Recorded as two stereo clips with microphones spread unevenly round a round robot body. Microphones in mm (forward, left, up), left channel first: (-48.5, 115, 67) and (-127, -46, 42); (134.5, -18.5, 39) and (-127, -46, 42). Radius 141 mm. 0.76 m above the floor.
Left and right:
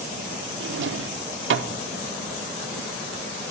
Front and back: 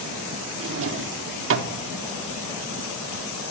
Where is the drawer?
130° right, 0.9 m.